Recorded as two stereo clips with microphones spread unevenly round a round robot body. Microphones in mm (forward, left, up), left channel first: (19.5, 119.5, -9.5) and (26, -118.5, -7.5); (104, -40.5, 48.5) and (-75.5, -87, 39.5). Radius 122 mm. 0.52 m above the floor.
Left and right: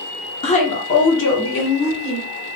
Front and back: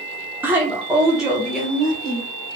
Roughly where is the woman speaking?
Behind left.